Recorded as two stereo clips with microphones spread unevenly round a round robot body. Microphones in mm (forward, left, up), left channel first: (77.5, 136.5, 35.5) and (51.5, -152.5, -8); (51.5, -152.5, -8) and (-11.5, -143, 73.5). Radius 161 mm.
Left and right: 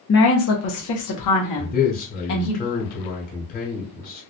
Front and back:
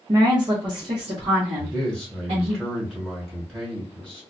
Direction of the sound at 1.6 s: 25° left.